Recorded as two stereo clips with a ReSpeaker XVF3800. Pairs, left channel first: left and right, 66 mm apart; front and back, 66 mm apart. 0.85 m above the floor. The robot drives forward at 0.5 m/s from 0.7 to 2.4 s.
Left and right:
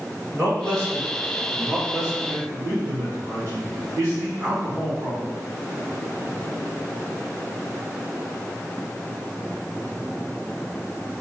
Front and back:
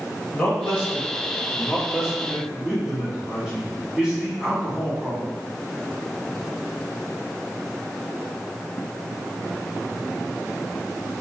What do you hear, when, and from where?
0.3 s a man speaking: 60° right, 1.6 m; by 5.3 s 100° right, 1.5 m